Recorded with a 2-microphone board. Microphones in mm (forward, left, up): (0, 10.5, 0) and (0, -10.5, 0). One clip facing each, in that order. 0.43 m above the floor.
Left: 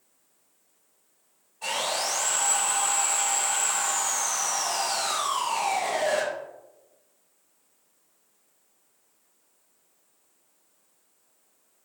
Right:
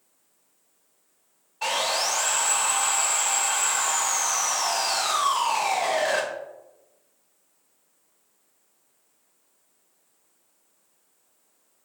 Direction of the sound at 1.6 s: 60° right (ahead or behind).